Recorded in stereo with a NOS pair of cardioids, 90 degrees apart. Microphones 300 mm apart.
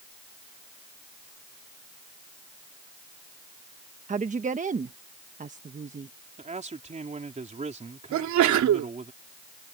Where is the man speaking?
25° right.